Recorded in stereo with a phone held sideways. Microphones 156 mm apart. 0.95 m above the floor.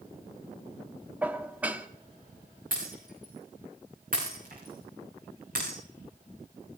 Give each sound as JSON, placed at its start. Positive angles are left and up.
{"t": 1.2, "sound": "dishes clattering", "side_deg": -10, "distance_m": 1.1}
{"t": 2.7, "sound": "breaking glass", "side_deg": -65, "distance_m": 7.0}